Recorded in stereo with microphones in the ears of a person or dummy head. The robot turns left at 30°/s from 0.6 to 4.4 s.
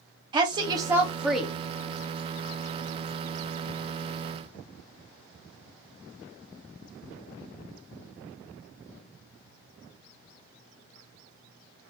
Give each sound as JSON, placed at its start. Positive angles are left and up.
{"t": 0.3, "sound": "a woman speaking", "side_deg": -25, "distance_m": 0.6}